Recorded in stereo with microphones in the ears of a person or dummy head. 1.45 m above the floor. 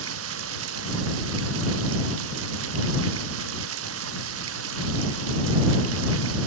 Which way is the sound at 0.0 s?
85° right.